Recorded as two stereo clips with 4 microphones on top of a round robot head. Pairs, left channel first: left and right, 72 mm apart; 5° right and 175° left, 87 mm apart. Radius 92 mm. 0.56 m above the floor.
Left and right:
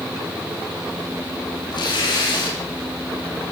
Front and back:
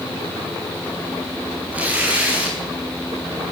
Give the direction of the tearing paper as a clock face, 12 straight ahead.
9 o'clock.